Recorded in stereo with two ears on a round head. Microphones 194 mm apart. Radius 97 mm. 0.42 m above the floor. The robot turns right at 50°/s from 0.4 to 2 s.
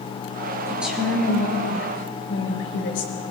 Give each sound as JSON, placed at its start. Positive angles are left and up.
{"t": 0.7, "sound": "a woman speaking", "azimuth_deg": -10, "distance_m": 6.5}